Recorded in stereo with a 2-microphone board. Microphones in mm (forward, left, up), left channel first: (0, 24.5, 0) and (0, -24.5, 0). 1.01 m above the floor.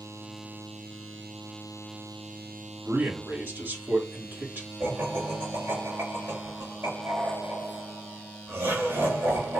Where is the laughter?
65° right (ahead or behind), 3 m.